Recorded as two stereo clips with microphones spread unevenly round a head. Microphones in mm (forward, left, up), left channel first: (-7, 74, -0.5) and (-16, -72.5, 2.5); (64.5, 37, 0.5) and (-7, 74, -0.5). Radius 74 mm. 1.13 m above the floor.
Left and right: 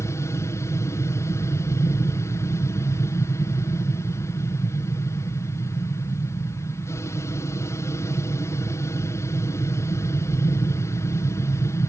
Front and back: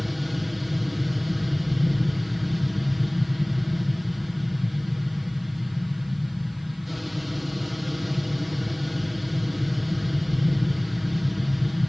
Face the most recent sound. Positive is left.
turn(degrees=65)